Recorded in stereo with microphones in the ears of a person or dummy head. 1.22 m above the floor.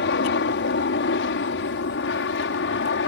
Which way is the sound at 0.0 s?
60° left (ahead or behind).